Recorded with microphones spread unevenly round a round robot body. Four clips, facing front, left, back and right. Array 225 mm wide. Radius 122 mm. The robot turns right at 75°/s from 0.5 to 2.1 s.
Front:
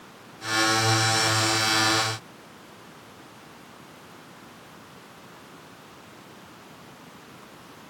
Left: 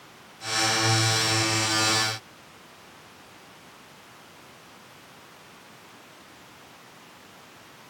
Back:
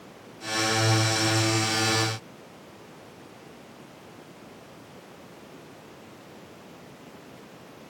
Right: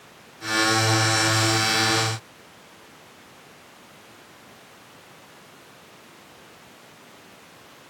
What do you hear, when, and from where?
Only background noise.